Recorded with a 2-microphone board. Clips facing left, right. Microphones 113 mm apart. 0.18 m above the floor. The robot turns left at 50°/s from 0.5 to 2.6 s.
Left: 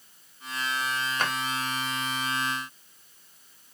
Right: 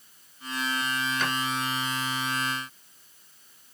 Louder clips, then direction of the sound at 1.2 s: Left 2 dB; 50° left (ahead or behind).